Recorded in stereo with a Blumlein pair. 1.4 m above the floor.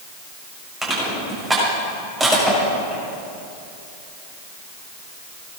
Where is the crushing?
10° right, 7 m.